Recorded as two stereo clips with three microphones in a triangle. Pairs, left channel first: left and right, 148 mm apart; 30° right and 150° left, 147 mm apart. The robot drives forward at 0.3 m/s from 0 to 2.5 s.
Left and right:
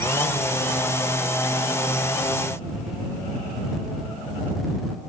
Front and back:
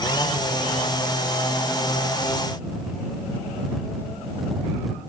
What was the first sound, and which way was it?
Only background noise.